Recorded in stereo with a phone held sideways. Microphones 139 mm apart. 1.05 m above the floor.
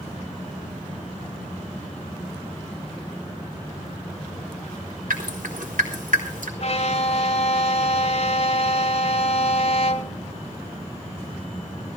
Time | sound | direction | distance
5.1 | dripping | 80° right | 3.5 m
6.6 | a violin | 50° left (ahead or behind) | 1.6 m